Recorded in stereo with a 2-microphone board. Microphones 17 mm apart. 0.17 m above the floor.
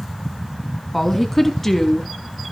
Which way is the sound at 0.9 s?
5° left (ahead or behind).